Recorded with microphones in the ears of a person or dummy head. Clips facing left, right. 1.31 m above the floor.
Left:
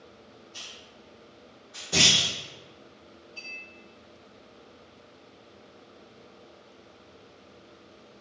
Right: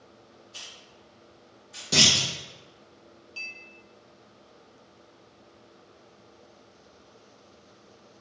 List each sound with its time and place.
0.5 s a hiss: 25° right (ahead or behind), 1.0 m
1.9 s a clunk: 45° right (ahead or behind), 0.7 m
3.4 s a clink: 40° right (ahead or behind), 0.9 m